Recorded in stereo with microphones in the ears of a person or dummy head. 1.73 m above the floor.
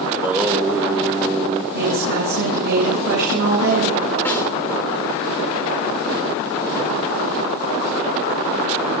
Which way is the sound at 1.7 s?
65° right (ahead or behind).